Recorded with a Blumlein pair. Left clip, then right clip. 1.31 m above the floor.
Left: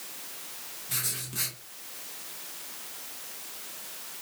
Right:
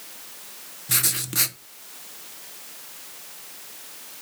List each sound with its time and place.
0.9 s writing: 30° right, 0.6 m